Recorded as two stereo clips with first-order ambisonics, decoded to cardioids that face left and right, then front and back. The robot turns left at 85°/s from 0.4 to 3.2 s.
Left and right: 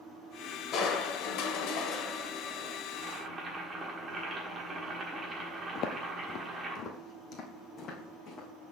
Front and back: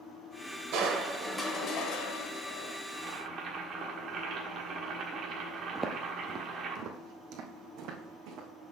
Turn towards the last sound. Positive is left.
turn(degrees=150)